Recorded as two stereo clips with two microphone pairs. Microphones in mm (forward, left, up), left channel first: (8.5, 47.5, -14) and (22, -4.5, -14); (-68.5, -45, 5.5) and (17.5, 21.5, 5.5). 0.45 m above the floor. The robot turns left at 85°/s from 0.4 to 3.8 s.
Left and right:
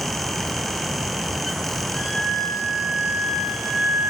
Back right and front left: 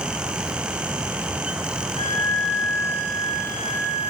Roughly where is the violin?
Behind.